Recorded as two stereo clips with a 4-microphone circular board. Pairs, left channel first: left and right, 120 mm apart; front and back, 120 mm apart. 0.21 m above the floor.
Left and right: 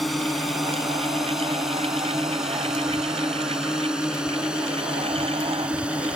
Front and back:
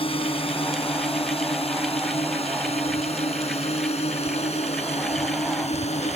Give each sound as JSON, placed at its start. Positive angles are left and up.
{"t": 0.0, "sound": "a drone", "azimuth_deg": 0}